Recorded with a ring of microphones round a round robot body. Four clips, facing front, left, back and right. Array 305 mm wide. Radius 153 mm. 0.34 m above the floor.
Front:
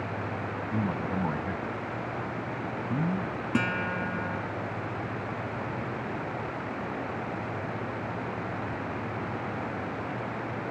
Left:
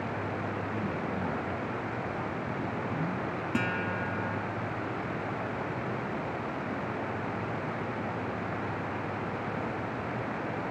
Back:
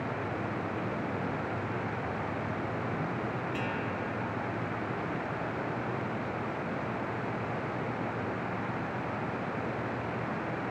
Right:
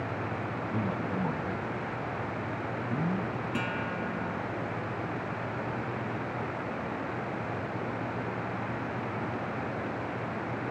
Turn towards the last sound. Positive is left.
turn(degrees=20)